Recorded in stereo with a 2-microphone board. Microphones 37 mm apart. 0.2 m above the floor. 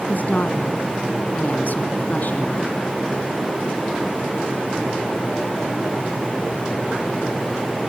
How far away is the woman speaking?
About 2.5 m.